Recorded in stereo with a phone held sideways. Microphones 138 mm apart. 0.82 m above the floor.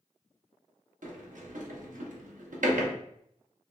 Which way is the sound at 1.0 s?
85° right.